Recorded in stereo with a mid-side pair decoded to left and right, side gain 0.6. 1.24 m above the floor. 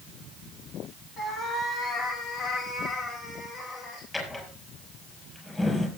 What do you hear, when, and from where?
1.2 s a cat meowing: 50° left, 3.5 m
4.1 s a drawer: 15° left, 5.5 m